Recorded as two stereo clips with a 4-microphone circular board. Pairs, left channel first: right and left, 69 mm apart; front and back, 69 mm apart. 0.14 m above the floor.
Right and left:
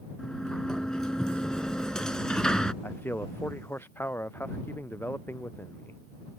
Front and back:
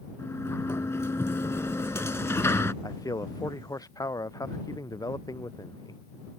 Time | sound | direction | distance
0.2 | a sliding door | 15° right | ?
2.8 | a man speaking | 30° right | ?